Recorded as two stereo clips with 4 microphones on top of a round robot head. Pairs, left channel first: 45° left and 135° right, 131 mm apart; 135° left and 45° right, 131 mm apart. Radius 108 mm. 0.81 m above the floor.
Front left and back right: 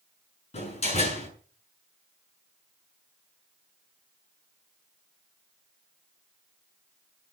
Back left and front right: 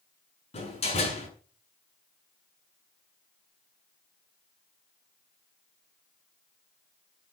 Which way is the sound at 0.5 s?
90° left.